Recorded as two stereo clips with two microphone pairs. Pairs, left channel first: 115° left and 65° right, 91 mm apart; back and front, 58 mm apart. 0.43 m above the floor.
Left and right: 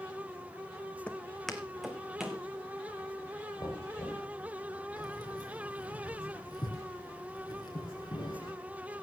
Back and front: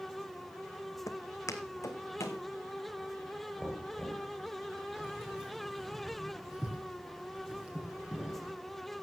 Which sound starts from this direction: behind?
Footsteps, at 1.1 s.